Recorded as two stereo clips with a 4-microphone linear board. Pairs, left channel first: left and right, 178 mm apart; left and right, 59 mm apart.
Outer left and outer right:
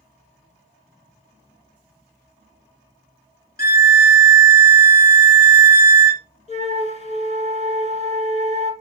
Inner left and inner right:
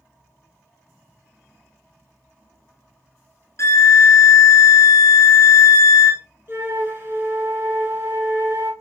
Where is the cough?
No cough in this recording.